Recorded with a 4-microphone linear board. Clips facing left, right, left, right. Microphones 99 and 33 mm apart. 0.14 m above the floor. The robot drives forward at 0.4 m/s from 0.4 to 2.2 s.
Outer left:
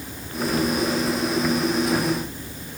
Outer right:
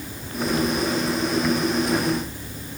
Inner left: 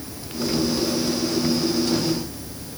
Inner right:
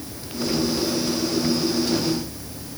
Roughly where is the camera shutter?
I don't hear a camera shutter.